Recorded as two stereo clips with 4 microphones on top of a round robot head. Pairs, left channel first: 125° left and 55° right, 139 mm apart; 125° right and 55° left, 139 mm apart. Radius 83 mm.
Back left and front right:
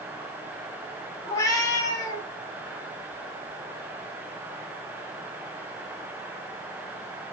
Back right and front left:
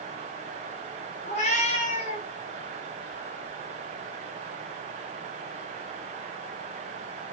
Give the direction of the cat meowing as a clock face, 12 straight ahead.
6 o'clock.